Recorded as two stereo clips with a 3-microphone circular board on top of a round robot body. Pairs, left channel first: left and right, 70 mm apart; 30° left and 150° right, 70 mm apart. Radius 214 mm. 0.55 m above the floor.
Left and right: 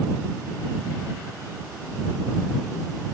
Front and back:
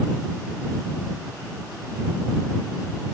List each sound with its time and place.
Only background noise.